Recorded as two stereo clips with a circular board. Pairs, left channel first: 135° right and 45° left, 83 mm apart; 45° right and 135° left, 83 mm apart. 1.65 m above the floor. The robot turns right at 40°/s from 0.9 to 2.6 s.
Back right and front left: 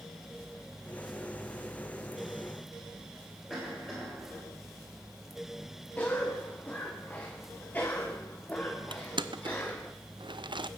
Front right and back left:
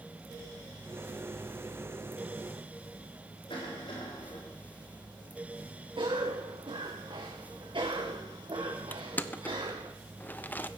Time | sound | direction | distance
3.5 | a cough | 55° right | 6 m
6.0 | a cough | 155° left | 1.2 m
8.9 | crushing | 25° left | 0.6 m